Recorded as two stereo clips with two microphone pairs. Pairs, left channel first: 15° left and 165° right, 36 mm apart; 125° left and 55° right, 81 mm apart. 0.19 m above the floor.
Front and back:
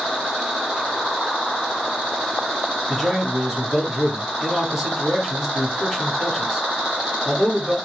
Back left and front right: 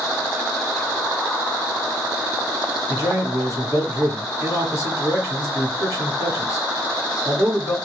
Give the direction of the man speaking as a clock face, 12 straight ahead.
8 o'clock.